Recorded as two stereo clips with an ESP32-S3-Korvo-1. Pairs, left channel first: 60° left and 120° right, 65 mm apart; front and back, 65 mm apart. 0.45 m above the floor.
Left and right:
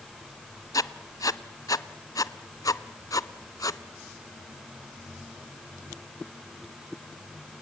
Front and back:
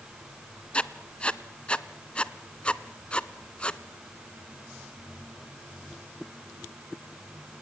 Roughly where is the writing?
Left.